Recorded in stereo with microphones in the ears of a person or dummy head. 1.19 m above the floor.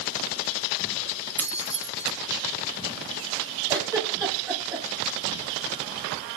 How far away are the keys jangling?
About 1.2 m.